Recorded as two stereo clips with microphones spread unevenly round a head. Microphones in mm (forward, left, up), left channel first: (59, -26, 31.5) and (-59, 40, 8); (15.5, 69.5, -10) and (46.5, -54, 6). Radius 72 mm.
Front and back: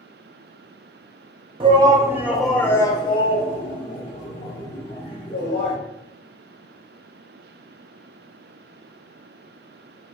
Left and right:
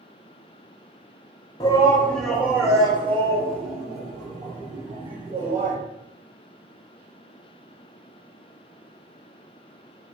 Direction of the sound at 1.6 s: 150° left.